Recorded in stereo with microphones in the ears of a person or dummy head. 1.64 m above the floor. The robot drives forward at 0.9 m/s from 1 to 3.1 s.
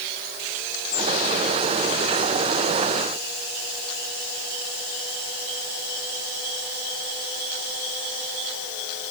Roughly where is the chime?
No chime in this recording.